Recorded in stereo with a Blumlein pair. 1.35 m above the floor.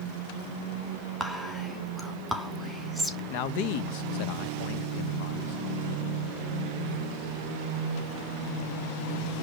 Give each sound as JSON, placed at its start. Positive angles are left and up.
{"t": 1.2, "sound": "whispering", "azimuth_deg": 0, "distance_m": 3.0}
{"t": 3.3, "sound": "a man speaking", "azimuth_deg": 45, "distance_m": 1.2}